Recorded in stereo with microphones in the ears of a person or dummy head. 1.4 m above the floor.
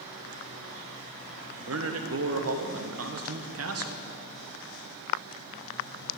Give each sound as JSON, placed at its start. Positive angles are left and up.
{"t": 1.6, "sound": "a man speaking", "side_deg": -70, "distance_m": 1.2}